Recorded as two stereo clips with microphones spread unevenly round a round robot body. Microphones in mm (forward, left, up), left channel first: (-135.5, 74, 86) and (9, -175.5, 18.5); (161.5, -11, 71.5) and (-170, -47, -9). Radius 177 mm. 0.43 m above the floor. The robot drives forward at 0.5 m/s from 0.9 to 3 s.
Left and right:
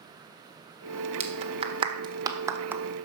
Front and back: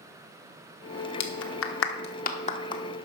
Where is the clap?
25° right, 1.3 m; by 2.8 s 90° right, 1.1 m.